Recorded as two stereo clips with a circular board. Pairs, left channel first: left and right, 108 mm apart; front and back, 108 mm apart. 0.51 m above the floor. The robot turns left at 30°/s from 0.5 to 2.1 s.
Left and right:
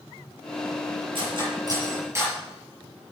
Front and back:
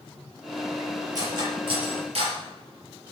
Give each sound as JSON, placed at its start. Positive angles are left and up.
{"t": 1.1, "sound": "cutlery clinking", "azimuth_deg": -125, "distance_m": 6.5}